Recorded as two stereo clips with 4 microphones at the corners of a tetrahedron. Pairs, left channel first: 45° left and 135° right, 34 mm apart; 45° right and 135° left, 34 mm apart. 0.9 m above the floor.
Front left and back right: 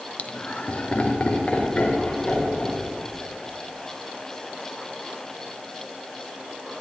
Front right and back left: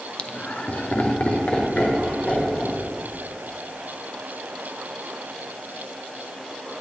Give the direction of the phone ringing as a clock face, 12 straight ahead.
I don't hear a phone ringing.